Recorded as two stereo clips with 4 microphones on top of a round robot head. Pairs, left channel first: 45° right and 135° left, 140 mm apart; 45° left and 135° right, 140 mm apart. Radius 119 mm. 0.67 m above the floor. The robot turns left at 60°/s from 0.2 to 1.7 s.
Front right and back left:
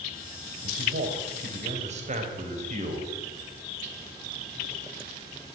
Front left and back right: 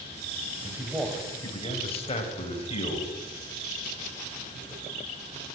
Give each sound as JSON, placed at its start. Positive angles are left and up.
{"t": 0.6, "sound": "a man speaking", "azimuth_deg": 160, "distance_m": 3.5}